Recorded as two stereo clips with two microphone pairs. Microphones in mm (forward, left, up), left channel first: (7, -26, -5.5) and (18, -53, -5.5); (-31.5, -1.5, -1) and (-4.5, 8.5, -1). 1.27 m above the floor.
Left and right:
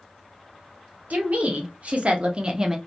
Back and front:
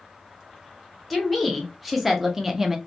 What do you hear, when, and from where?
1.1 s a woman speaking: 80° right, 1.2 m; by 2.8 s 35° right, 0.5 m